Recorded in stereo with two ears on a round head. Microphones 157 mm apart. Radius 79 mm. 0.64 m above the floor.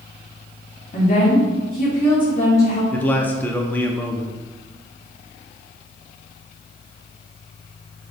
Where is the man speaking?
10° left (ahead or behind), 0.6 m.